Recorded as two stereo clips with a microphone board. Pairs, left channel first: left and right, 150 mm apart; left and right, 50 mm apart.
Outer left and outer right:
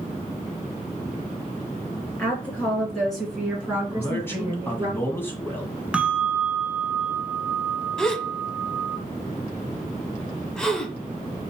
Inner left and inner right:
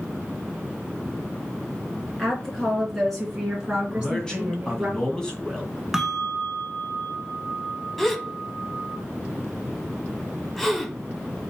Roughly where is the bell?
Centre.